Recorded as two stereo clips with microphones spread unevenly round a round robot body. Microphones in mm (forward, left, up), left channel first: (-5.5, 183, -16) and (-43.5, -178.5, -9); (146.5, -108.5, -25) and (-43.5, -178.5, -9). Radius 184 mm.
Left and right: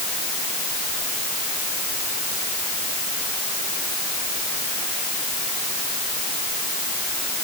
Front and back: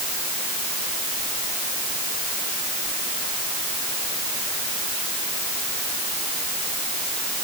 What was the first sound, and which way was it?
Only background noise.